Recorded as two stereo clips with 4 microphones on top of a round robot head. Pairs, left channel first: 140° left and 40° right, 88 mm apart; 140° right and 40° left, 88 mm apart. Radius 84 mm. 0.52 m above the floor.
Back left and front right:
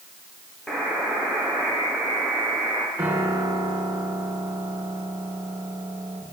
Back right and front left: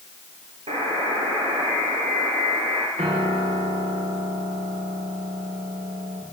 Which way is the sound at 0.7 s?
55° left.